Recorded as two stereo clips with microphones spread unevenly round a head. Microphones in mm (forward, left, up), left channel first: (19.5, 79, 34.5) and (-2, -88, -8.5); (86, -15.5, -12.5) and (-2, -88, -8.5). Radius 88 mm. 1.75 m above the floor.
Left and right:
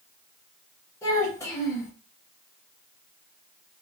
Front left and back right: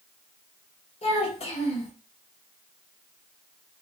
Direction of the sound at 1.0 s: 20° left.